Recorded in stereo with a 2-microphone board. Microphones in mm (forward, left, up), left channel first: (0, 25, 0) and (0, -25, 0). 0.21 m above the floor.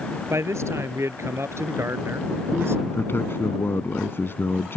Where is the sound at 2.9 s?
50° left (ahead or behind).